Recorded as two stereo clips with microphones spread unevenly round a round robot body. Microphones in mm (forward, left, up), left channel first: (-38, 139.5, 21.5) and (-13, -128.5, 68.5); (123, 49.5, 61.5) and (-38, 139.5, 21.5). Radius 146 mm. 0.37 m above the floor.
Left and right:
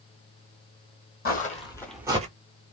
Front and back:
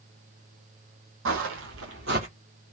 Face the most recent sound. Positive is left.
turn(degrees=-135)